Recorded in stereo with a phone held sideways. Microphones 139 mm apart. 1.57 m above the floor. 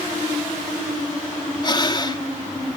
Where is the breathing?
35° left (ahead or behind).